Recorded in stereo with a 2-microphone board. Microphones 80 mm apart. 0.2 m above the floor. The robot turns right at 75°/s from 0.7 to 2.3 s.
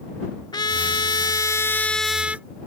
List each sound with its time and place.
0.5 s a trumpet: 75° left; by 2.5 s 165° right